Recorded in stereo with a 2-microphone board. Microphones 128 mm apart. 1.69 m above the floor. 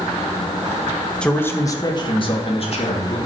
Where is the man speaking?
5° left (ahead or behind), 1.4 m; by 3.2 s 55° left (ahead or behind), 3 m.